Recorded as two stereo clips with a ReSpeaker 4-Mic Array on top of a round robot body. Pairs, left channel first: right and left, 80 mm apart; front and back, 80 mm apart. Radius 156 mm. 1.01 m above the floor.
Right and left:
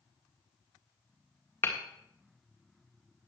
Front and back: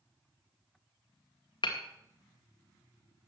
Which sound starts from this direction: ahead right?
Hammering, at 1.6 s.